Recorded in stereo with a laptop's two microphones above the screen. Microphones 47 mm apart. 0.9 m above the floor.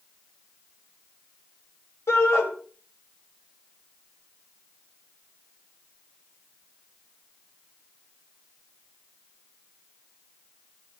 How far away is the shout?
About 5 m.